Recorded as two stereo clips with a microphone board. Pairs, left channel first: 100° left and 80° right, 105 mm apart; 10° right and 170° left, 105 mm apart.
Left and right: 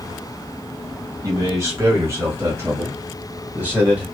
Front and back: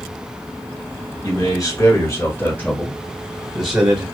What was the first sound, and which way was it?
A man speaking, 35° right.